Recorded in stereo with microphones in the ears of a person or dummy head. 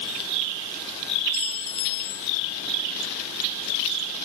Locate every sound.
1.3 s a clink: 85° left